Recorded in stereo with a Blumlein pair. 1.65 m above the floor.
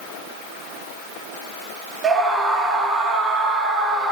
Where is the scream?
20° right, 1.4 m.